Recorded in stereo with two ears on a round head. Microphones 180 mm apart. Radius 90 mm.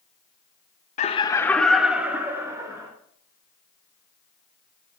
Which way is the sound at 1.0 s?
35° left (ahead or behind).